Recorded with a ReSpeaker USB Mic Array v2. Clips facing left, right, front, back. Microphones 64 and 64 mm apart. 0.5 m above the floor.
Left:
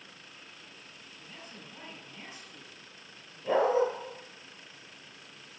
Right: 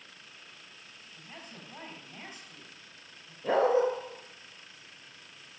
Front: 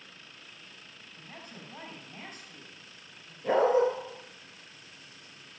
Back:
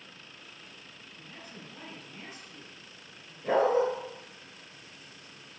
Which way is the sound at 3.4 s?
90° right.